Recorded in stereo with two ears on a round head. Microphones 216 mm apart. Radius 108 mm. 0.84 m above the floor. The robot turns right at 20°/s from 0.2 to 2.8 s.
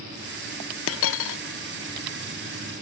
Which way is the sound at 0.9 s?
60° left (ahead or behind).